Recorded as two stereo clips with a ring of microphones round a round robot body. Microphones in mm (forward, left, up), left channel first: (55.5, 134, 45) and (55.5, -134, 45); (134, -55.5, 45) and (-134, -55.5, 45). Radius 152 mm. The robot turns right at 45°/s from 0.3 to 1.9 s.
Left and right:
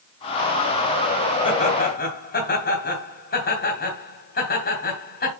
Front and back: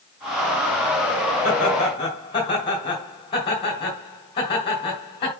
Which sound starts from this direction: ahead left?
Laughter, at 1.4 s.